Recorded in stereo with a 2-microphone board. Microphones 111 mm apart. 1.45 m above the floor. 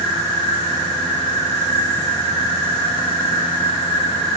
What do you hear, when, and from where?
0.0 s an insect: 20° right (ahead or behind), 7 m